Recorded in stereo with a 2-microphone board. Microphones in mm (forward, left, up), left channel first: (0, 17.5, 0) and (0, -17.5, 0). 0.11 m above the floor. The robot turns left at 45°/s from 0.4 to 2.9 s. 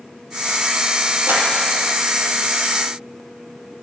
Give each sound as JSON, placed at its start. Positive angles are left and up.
{"t": 1.3, "sound": "a clap", "side_deg": -55, "distance_m": 3.0}